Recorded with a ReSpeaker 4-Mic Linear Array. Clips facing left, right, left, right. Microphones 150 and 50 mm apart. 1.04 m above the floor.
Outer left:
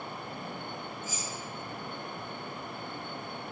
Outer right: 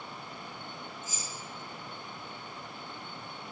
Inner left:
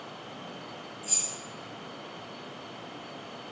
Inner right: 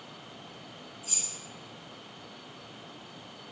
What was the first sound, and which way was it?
Keys jangling, 15° left (ahead or behind).